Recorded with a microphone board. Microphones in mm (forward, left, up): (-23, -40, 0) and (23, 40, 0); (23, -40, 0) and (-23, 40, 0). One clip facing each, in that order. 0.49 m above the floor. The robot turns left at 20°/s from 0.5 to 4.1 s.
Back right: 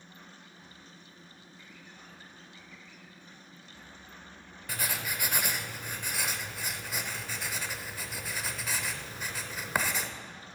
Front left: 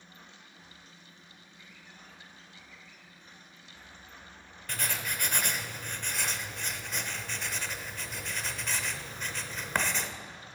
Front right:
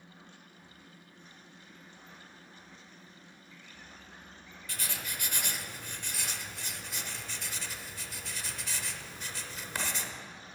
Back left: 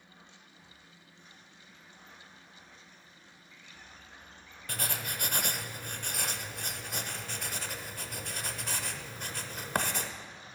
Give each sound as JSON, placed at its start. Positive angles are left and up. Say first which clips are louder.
{"t": 4.7, "sound": "writing", "louder": "even, back left 4 dB", "azimuth_deg": 160, "distance_m": 0.7}